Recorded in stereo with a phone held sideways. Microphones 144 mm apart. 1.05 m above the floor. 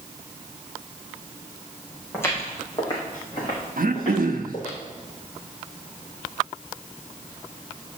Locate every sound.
2.1 s footsteps: 15° left (ahead or behind), 4 m; by 4.8 s 50° left (ahead or behind), 6 m
3.8 s throat clearing: 75° right (ahead or behind), 0.9 m